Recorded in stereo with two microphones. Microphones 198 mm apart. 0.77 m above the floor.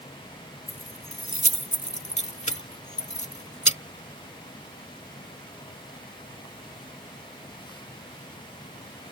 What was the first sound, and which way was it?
Keys jangling, 35° left (ahead or behind).